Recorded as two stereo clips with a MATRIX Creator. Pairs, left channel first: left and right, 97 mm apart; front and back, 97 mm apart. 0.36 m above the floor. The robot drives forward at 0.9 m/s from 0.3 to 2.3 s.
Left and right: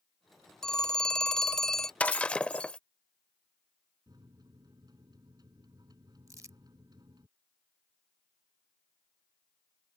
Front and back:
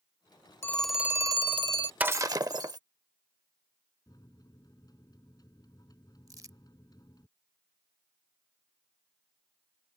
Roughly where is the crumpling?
Behind right.